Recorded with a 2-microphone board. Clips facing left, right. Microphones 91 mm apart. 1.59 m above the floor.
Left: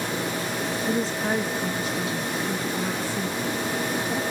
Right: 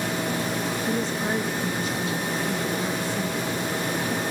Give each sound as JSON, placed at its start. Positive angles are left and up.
{"t": 0.9, "sound": "a woman speaking", "side_deg": 5, "distance_m": 0.8}